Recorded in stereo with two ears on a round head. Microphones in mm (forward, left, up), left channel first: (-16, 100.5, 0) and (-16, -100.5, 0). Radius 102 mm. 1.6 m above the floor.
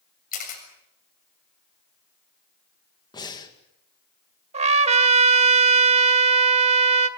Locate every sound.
0.3 s a camera shutter: 40° left (ahead or behind), 7 m
3.1 s breathing: 20° left (ahead or behind), 2 m
4.5 s a trumpet: 30° right (ahead or behind), 1.3 m